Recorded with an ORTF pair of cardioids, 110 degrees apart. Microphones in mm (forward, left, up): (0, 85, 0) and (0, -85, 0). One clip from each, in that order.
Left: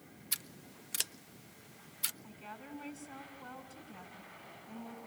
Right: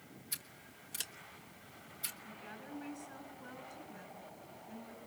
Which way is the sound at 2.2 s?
25° left.